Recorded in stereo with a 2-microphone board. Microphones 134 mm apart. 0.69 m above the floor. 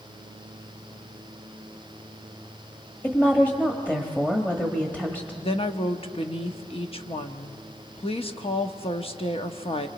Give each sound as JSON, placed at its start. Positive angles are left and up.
{"t": 3.0, "sound": "a woman speaking", "side_deg": 10, "distance_m": 1.2}
{"t": 5.4, "sound": "a woman speaking", "side_deg": 45, "distance_m": 0.9}